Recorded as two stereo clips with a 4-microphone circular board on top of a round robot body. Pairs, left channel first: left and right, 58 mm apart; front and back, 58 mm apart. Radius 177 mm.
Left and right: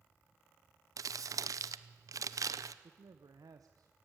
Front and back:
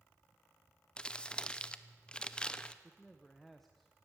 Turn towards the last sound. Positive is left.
turn(degrees=-85)